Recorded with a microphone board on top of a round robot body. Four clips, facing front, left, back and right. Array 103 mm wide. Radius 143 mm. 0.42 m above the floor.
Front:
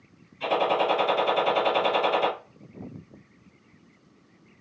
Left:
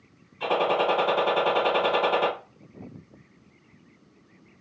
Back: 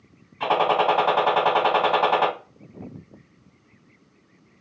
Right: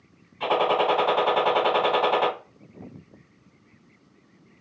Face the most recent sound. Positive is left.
turn(degrees=-160)